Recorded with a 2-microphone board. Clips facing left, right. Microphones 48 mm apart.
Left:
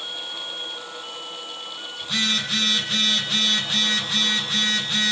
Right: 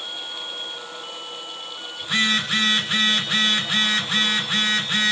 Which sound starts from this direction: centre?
A phone buzzing, at 2.0 s.